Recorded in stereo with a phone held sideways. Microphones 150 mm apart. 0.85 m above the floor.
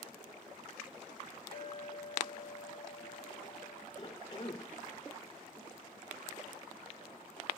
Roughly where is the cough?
Left.